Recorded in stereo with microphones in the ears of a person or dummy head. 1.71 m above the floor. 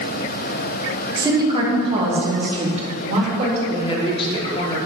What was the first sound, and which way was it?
A woman speaking, 25° right (ahead or behind).